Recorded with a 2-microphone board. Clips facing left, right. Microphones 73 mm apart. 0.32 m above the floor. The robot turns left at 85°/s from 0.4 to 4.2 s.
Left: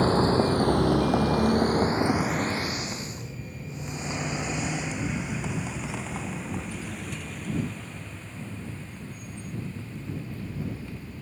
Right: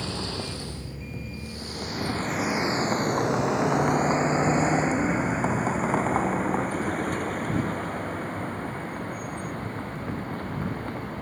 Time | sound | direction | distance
0.0 | a vehicle | 40° left (ahead or behind) | ?